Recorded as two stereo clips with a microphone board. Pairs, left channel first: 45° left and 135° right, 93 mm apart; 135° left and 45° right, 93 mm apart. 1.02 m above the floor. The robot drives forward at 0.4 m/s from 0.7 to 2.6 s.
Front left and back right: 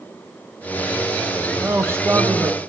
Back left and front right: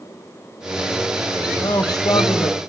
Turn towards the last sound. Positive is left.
turn(degrees=170)